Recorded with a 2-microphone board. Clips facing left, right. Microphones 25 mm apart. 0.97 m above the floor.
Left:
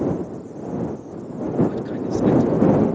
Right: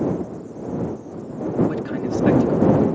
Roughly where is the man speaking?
Right.